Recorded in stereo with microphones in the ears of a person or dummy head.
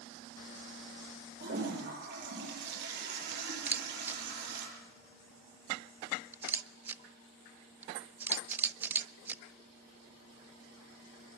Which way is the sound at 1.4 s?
70° right (ahead or behind).